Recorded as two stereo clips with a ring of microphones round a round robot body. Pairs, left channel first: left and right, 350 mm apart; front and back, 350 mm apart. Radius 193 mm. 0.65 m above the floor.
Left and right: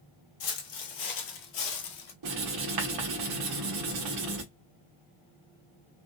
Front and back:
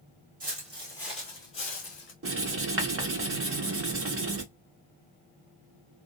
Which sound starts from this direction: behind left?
Footsteps, at 0.4 s.